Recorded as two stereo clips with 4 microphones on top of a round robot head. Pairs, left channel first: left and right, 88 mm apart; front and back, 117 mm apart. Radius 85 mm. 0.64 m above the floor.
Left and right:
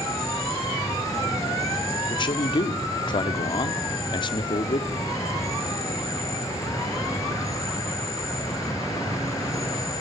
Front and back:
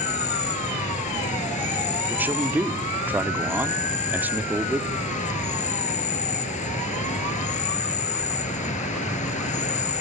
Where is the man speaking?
105° left, 1.2 m.